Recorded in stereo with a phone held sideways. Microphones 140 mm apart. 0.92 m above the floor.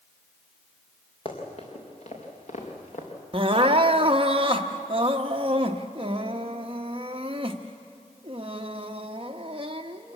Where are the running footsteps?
40° left (ahead or behind), 5 m; by 3.1 s 65° left (ahead or behind), 5 m.